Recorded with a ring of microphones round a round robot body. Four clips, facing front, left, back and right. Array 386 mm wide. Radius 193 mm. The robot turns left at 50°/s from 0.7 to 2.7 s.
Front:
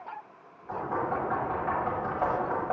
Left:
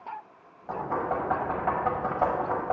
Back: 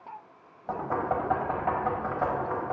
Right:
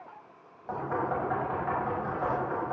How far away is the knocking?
About 1.8 m.